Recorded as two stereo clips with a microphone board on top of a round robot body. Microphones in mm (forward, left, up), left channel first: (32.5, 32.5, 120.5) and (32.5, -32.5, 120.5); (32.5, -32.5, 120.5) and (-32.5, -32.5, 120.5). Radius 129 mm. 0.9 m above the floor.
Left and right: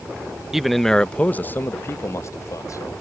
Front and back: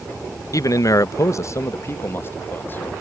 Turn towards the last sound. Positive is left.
turn(degrees=60)